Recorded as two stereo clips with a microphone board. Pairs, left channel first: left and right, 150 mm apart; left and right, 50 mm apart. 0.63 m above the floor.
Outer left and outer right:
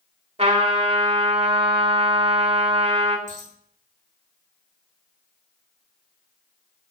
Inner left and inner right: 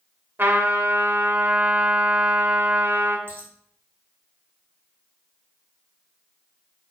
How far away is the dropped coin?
About 5 m.